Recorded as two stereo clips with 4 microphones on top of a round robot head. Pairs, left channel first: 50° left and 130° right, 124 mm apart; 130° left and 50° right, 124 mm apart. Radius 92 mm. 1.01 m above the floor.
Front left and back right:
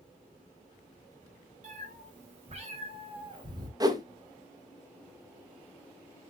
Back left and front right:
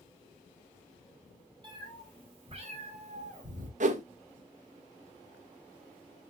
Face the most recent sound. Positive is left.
turn(degrees=-70)